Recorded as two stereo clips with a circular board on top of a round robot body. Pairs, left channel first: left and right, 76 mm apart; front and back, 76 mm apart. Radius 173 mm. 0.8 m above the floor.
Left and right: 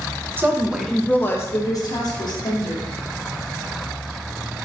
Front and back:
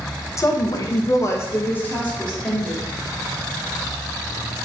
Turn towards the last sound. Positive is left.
turn(degrees=80)